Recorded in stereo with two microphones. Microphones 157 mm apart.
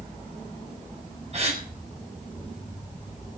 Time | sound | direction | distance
1.3 | a gasp | 45° right (ahead or behind) | 4 m